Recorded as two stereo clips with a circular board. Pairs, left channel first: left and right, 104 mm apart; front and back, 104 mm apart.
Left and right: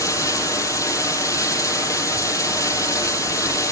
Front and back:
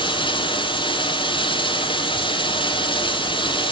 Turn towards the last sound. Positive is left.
turn(degrees=35)